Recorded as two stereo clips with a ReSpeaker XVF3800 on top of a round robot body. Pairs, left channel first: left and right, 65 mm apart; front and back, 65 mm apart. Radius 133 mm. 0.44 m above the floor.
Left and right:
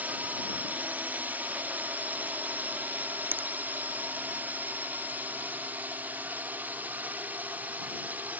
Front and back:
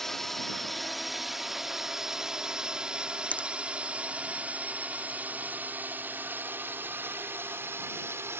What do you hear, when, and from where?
0.0 s a drone: 80° right; by 8.4 s 145° right
3.3 s a finger snap: 55° right